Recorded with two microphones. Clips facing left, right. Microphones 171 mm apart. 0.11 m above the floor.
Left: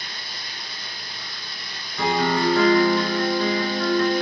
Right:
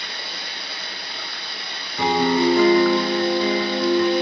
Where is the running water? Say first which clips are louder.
Right 4 dB; 70° right (ahead or behind), 0.9 m.